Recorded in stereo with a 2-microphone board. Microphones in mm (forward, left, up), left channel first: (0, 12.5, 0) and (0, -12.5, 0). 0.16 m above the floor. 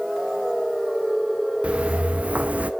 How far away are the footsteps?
About 1.1 m.